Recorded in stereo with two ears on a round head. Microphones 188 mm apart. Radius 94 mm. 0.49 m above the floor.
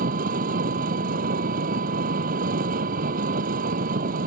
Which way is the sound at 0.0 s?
45° right (ahead or behind).